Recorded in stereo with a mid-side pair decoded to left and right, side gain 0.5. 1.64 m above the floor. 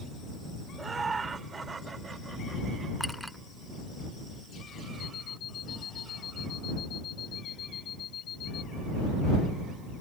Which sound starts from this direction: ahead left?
An alarm clock, at 5.0 s.